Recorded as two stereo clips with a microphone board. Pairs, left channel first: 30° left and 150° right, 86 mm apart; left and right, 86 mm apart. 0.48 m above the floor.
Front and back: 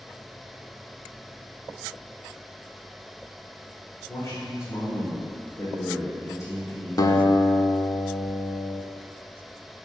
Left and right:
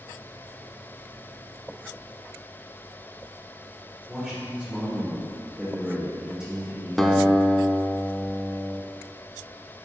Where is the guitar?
5° left, 0.5 m.